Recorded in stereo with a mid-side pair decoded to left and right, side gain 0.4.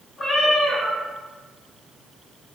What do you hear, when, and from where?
0.2 s a cat meowing: 35° left, 1.8 m